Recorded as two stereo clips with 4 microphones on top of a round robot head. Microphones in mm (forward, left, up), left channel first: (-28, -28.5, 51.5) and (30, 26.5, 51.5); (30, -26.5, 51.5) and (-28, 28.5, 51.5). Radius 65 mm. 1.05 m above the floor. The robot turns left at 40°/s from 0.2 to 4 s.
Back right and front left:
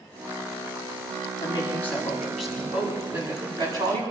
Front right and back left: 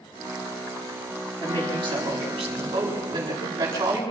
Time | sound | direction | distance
1.4 | a woman speaking | 170° left | 8.5 m